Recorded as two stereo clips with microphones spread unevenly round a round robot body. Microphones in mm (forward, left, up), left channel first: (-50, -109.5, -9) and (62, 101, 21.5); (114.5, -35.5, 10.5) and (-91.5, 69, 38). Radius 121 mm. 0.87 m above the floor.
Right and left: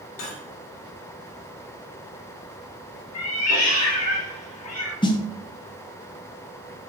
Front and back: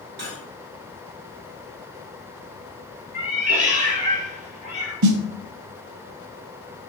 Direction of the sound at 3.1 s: 145° right.